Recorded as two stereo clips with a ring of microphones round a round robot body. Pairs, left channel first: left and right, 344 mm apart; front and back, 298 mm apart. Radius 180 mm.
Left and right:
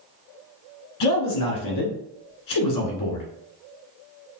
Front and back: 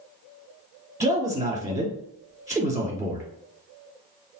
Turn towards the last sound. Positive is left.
turn(degrees=100)